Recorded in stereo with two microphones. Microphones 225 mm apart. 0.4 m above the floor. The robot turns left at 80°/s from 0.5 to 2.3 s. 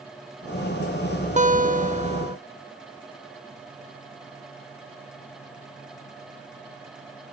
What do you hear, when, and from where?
1.4 s a guitar: 65° right, 0.6 m; by 2.4 s 140° right, 0.6 m